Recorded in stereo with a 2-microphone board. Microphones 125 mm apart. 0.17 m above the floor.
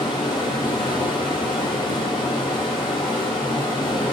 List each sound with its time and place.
0.0 s running water: 40° left (ahead or behind), 0.8 m